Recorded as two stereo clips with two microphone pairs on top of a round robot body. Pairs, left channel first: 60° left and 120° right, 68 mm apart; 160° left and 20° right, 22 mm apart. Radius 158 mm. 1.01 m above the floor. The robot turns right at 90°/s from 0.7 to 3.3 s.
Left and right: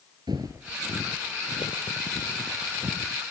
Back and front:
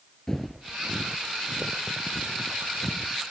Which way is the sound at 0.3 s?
115° right.